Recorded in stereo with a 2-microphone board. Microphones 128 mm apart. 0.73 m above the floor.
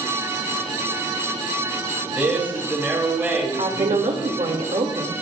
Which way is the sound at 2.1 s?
15° right (ahead or behind).